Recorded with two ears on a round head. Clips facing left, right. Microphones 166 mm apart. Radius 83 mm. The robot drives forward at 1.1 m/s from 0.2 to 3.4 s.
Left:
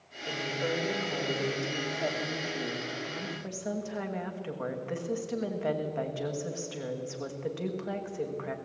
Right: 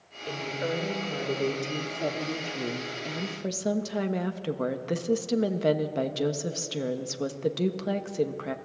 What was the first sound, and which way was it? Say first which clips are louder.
A woman speaking: right 1 dB; 15° right (ahead or behind).